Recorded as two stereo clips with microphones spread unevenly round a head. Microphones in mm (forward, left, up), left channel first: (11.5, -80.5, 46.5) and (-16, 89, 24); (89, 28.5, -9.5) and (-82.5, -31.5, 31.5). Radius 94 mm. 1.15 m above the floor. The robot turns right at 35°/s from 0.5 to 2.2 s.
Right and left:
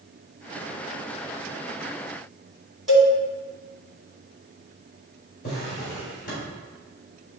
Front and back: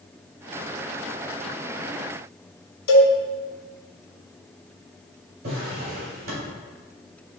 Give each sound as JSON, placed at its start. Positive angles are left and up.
{"t": 2.9, "sound": "a cowbell", "azimuth_deg": 5, "distance_m": 1.7}
{"t": 5.4, "sound": "a drawer", "azimuth_deg": -125, "distance_m": 3.5}